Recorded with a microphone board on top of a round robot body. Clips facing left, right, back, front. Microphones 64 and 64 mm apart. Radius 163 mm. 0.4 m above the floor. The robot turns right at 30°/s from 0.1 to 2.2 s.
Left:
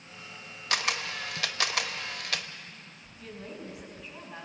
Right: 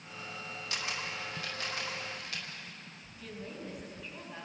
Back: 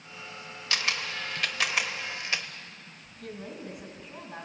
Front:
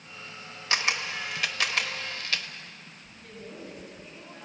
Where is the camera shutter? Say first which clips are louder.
Left 8 dB, front 3 dB; 65° left, 1.0 m; by 2.5 s 110° left, 1.0 m.